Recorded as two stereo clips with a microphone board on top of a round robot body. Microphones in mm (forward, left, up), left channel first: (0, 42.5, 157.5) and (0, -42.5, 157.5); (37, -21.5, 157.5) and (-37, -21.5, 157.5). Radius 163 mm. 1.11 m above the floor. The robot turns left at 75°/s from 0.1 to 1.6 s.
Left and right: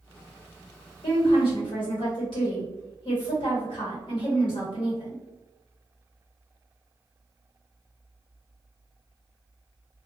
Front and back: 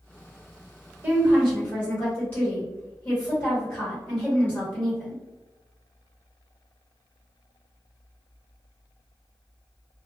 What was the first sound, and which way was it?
A woman speaking, 115° left.